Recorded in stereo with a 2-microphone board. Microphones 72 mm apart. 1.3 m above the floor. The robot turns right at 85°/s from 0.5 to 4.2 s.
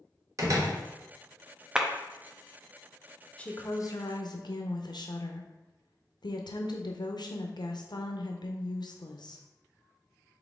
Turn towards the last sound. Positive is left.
turn(degrees=85)